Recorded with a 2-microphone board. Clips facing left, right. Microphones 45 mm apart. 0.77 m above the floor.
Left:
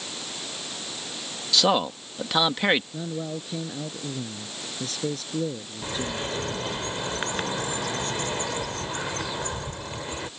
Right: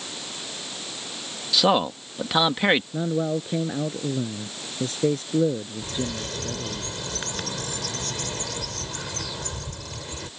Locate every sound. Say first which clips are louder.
1.5 s a man speaking: right 2 dB; 5° right (ahead or behind)
2.9 s a man speaking: right 7 dB; 30° right (ahead or behind)
5.8 s a bird: left 4 dB; 25° left (ahead or behind)